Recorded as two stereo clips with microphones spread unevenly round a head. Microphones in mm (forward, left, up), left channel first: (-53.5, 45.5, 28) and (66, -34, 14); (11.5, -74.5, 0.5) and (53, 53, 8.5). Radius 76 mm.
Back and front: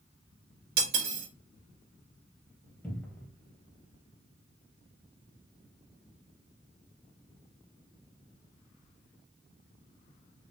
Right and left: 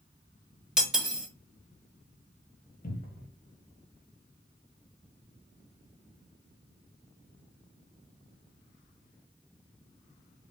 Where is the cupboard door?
135° right, 1.0 m.